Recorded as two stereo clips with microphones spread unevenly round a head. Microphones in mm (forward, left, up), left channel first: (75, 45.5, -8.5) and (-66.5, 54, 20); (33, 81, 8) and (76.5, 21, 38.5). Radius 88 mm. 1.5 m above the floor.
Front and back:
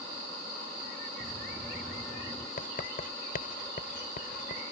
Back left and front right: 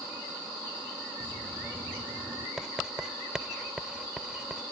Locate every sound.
1.2 s dripping: 90° right
2.6 s writing: 20° left